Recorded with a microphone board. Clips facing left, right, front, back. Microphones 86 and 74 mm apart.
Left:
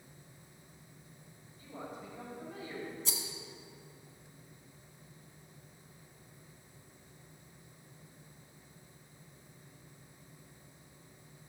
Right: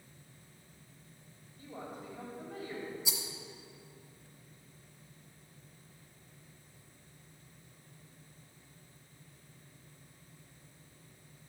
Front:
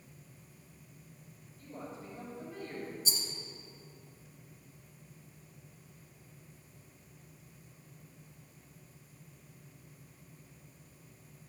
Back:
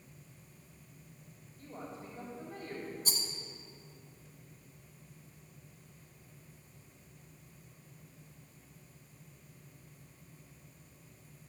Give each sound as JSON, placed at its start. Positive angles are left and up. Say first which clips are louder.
{"t": 1.6, "sound": "a woman speaking", "louder": "even, even", "azimuth_deg": -135, "distance_m": 3.0}
{"t": 3.0, "sound": "a rattle", "louder": "right 1 dB, even", "azimuth_deg": -170, "distance_m": 1.5}